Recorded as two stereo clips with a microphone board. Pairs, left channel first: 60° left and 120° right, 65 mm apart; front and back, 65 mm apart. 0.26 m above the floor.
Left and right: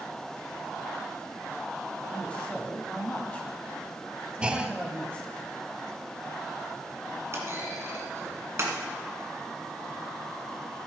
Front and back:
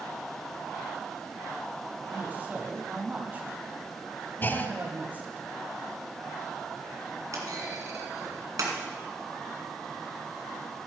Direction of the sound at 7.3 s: 160° right.